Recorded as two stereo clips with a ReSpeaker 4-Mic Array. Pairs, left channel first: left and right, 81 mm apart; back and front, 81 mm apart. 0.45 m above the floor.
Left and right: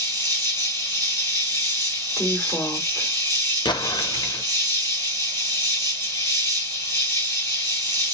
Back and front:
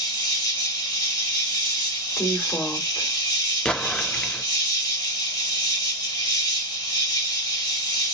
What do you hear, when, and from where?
0.0 s an insect: 145° left, 1.1 m
2.2 s a woman speaking: 140° left, 1.2 m
3.6 s an explosion: 100° left, 0.5 m